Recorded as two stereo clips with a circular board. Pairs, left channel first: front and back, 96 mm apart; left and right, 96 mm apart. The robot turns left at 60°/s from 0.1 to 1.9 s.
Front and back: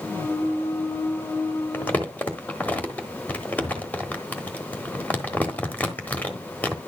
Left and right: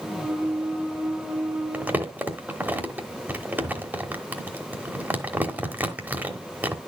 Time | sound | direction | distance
1.7 | crumpling | 35° right | 1.1 m